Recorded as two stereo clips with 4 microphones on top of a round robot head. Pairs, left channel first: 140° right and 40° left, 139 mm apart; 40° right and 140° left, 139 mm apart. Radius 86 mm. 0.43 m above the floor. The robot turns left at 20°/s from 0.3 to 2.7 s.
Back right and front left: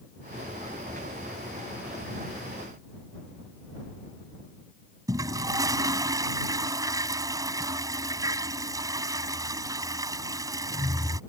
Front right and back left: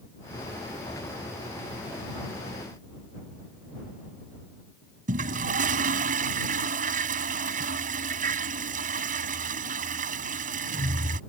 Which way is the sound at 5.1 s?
110° left.